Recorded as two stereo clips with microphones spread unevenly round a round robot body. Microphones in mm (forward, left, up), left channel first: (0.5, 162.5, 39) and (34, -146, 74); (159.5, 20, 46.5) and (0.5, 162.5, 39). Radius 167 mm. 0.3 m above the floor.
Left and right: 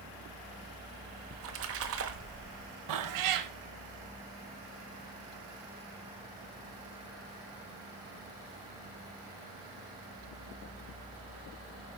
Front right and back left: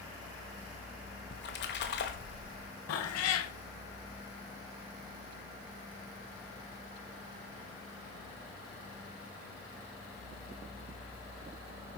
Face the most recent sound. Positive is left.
turn(degrees=-55)